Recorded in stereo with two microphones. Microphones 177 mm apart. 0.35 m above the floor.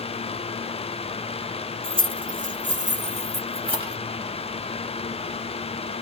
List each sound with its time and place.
1.8 s keys jangling: 50° right (ahead or behind), 1.0 m; by 4.0 s 25° right (ahead or behind), 1.3 m